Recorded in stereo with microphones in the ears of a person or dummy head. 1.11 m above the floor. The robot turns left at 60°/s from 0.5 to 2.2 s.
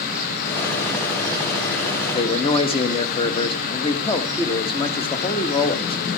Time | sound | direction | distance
2.1 | a man speaking | 20° left (ahead or behind) | 1.1 m